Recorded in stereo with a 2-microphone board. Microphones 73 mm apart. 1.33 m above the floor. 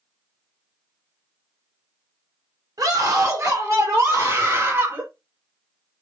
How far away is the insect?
I don't hear an insect.